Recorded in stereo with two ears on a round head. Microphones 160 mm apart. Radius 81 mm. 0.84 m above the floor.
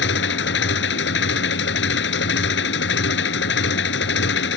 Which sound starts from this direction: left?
An engine running, at 0.0 s.